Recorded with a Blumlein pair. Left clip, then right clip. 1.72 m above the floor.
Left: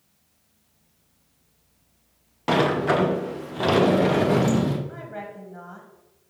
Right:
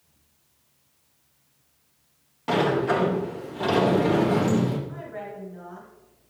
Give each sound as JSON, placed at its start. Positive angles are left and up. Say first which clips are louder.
{"t": 2.5, "sound": "a sliding door", "louder": "left 2 dB", "azimuth_deg": 70, "distance_m": 0.5}
{"t": 4.9, "sound": "a woman speaking", "louder": "even", "azimuth_deg": 25, "distance_m": 1.4}